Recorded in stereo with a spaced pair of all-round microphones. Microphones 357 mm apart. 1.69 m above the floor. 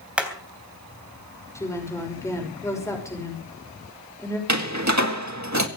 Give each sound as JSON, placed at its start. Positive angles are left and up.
{"t": 0.2, "sound": "hammering", "side_deg": -5, "distance_m": 3.0}
{"t": 1.6, "sound": "a woman speaking", "side_deg": 10, "distance_m": 6.0}
{"t": 4.5, "sound": "a door slam", "side_deg": -50, "distance_m": 1.9}